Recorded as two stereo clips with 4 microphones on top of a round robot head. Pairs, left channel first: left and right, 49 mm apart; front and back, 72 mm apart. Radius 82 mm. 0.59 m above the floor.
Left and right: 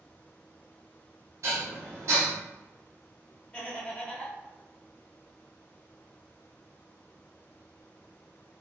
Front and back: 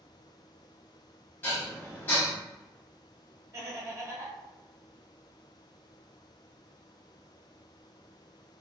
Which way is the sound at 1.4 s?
65° right.